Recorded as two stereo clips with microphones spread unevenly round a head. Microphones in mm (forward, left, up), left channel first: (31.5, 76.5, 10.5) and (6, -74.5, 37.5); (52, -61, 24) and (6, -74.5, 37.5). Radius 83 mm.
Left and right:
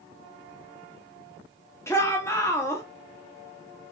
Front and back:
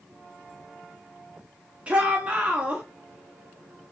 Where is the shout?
120° left, 0.9 m.